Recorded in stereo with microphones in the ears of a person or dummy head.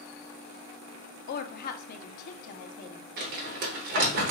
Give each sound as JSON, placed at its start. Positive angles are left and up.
{"t": 1.3, "sound": "a woman speaking", "side_deg": 55, "distance_m": 0.7}
{"t": 3.2, "sound": "crumpling", "side_deg": -45, "distance_m": 1.0}